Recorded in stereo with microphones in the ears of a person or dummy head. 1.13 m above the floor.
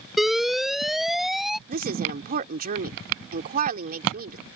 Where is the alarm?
Centre (ahead or behind).